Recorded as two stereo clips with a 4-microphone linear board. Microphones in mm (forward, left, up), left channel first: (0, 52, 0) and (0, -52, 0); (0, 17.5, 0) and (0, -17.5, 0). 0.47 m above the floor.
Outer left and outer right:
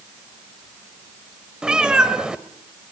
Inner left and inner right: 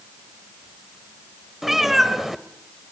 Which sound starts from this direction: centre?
A cat meowing, at 1.6 s.